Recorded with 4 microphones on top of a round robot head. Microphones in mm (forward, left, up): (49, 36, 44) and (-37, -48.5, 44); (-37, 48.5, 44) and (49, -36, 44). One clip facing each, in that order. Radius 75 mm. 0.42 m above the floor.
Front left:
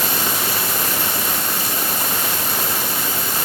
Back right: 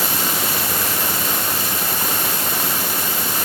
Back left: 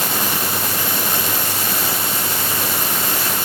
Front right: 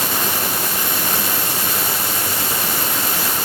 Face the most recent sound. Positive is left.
No sound to turn to.